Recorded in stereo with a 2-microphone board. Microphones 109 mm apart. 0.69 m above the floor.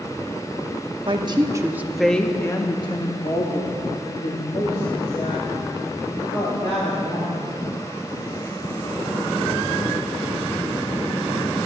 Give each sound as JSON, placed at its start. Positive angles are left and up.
{"t": 1.1, "sound": "a woman speaking", "side_deg": -45, "distance_m": 1.1}